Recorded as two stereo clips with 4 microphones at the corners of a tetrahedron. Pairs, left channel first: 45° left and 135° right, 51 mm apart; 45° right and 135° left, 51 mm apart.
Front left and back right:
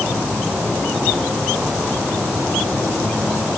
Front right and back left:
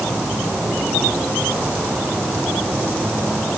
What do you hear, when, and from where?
Only background noise.